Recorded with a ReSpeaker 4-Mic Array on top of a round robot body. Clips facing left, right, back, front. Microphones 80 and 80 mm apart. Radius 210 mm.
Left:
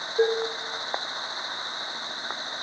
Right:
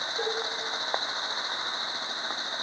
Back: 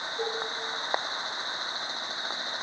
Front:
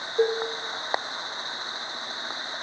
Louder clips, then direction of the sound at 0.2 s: Left 10 dB, front 10 dB; 35° left.